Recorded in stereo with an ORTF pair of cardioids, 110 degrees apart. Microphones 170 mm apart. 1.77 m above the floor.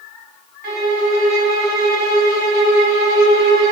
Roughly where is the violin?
Ahead right.